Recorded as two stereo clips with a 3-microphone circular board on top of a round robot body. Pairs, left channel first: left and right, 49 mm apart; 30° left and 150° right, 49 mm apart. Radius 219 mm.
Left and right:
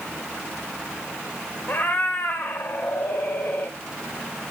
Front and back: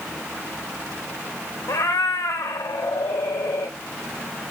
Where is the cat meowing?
35° left, 0.6 m.